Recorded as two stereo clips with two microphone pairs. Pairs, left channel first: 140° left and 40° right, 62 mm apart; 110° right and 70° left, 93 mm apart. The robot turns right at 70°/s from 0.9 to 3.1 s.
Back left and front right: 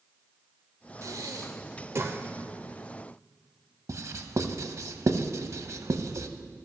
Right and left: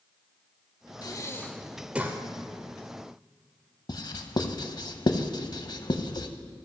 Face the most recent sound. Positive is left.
turn(degrees=-70)